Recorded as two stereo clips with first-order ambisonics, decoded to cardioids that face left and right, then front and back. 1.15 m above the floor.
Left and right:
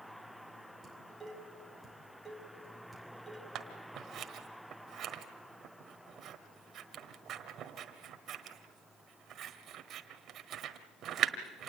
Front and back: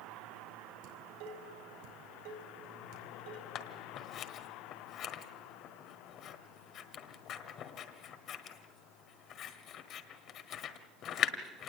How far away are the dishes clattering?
About 4.5 m.